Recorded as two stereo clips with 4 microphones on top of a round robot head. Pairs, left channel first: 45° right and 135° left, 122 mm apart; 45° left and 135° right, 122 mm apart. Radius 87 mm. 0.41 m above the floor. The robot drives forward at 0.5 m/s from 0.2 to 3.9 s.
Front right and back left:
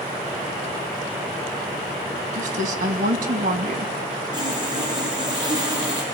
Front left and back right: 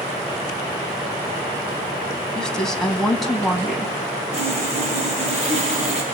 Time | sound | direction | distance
2.4 | a woman speaking | 130° left | 3 m
4.3 | sawing | 170° right | 9 m